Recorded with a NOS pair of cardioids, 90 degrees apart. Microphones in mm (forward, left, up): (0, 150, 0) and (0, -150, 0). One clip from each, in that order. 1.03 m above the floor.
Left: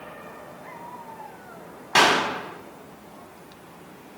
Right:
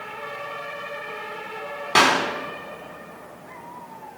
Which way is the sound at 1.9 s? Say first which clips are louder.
Right 1 dB; 10° right.